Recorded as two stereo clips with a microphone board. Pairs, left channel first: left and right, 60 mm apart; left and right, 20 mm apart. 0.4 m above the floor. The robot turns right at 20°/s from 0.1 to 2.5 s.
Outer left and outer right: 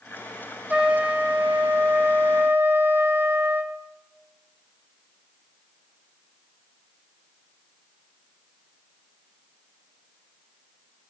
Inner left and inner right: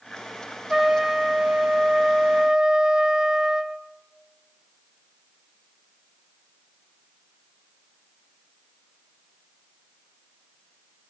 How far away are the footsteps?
No footsteps in this recording.